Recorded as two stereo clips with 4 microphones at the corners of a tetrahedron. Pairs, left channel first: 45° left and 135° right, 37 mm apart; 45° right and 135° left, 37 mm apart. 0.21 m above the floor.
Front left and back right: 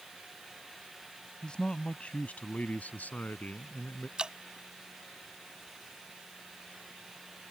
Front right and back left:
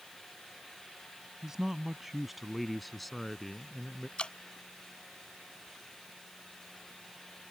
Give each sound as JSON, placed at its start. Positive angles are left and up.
{"t": 1.4, "sound": "a man speaking", "azimuth_deg": 80}
{"t": 4.2, "sound": "dripping", "azimuth_deg": -85}